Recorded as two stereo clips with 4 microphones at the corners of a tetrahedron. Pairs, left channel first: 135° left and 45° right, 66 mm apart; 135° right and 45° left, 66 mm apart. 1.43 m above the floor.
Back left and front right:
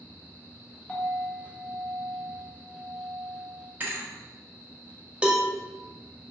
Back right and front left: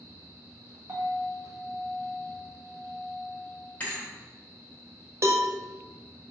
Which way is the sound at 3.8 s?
85° right.